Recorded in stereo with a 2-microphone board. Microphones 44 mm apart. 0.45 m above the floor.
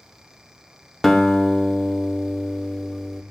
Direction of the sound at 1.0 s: 10° left (ahead or behind).